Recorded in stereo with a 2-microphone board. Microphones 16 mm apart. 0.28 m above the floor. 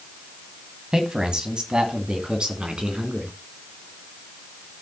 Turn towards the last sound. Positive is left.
turn(degrees=-65)  # may be behind; listen again after turning